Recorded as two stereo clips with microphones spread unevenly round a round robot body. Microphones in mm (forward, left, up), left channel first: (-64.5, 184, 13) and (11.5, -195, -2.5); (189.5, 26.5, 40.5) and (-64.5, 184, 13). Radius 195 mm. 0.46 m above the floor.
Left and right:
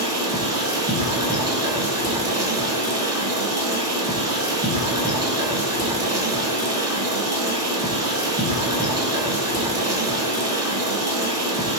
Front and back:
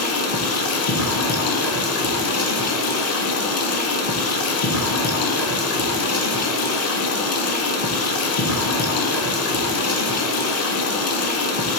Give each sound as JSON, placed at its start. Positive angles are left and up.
{"t": 0.0, "sound": "running water", "azimuth_deg": 5, "distance_m": 0.8}